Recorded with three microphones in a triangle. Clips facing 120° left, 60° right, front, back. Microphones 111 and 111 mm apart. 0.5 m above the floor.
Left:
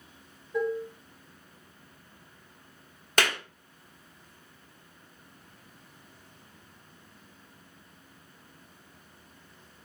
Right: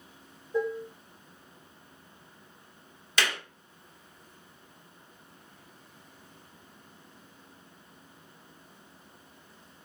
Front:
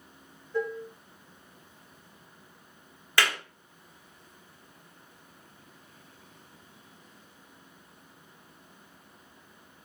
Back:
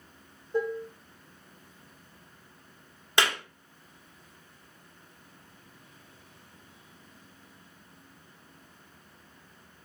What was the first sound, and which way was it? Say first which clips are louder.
Dishes clattering: left 1 dB, back 2 dB; 120° right.